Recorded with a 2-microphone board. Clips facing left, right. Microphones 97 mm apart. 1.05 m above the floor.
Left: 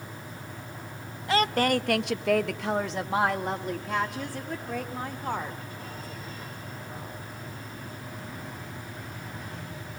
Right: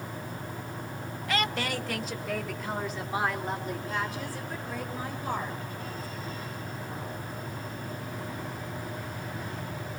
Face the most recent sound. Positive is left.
turn(degrees=50)  # may be behind; listen again after turning